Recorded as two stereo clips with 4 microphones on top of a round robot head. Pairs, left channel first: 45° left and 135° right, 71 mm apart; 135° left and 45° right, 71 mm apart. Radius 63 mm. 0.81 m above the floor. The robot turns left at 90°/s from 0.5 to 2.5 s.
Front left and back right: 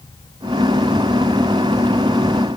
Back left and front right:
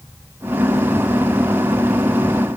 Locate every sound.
Only background noise.